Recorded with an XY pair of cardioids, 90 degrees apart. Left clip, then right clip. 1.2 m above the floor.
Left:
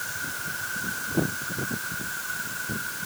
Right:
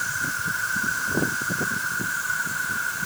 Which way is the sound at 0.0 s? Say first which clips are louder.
Right 6 dB; 55° right.